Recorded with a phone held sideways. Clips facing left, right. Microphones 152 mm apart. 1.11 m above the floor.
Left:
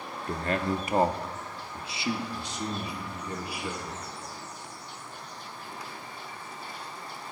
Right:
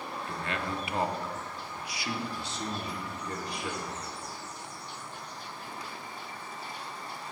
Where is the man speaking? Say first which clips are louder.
Left 8 dB; 40° left (ahead or behind), 0.8 m; by 4.0 s 5° left (ahead or behind), 1.8 m.